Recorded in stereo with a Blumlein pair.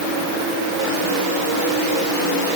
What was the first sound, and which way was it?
Only background noise.